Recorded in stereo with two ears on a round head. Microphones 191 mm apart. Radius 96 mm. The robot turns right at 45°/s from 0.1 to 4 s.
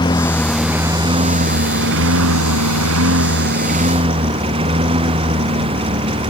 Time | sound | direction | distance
0.0 | a lawn mower | 160° left | ?